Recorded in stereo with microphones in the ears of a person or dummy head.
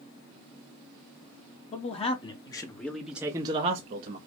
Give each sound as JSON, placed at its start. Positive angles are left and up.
{"t": 1.7, "sound": "a man speaking", "side_deg": 40, "distance_m": 1.1}